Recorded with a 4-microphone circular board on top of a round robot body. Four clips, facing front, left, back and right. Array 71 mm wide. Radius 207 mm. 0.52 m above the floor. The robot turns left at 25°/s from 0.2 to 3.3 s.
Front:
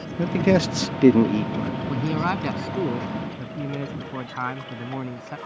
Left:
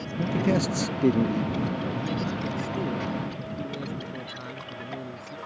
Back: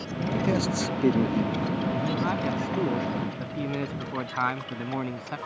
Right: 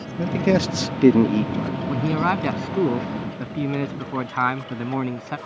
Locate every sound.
0.2 s a man speaking: 25° right; by 1.8 s 65° right
1.9 s a man speaking: 60° right; by 5.4 s 100° right